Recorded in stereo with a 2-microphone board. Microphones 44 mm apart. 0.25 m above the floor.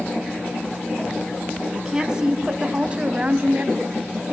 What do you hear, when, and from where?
1.7 s a woman speaking: 15° right (ahead or behind), 2.5 m; by 4.3 s 40° right (ahead or behind), 1.9 m